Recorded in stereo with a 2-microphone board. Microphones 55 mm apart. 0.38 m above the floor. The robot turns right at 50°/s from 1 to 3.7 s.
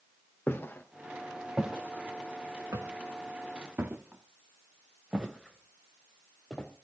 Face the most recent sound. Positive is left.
turn(degrees=10)  # may be behind; listen again after turning